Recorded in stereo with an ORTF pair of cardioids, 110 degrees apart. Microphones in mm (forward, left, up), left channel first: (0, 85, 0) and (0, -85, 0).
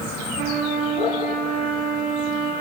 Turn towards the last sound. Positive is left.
turn(degrees=-65)